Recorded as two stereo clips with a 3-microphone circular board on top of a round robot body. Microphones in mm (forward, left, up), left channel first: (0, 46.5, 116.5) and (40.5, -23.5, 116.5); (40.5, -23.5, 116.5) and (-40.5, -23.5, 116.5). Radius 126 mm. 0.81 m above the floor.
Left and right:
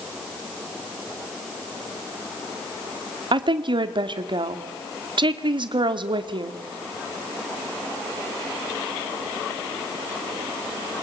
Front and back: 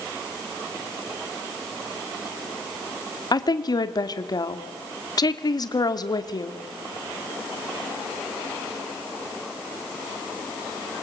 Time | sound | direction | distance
3.3 | a woman speaking | 35° right | 2.5 m